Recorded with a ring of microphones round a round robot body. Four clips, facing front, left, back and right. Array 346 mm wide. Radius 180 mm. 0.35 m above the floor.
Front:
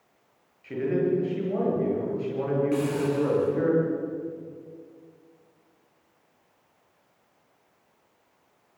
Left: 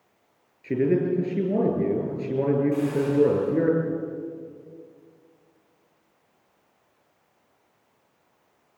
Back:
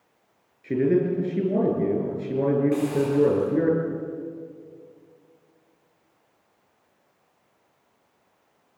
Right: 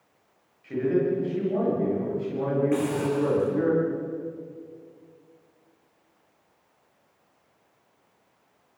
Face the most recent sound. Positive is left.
turn(degrees=-80)